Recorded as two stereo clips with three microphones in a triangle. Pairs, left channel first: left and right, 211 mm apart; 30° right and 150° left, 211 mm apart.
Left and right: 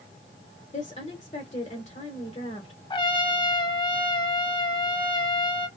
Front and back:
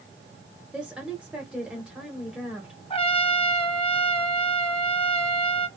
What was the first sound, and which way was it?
A woman speaking, 65° left.